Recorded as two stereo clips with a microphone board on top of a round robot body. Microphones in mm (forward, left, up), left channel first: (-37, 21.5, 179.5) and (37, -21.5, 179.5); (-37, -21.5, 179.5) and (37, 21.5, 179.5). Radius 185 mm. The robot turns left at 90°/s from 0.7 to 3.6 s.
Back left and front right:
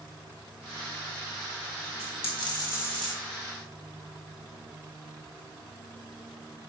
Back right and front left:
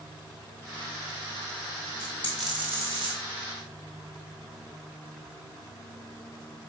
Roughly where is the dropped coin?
Behind.